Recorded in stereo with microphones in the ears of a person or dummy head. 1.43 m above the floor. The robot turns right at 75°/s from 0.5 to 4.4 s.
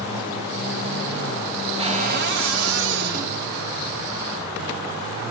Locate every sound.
1.8 s a cupboard door: 155° right, 2 m; by 3.4 s 35° right, 2 m